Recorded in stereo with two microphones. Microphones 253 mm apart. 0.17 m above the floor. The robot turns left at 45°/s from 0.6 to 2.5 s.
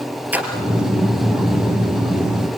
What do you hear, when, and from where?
0.3 s a splash: 5° right (ahead or behind), 3 m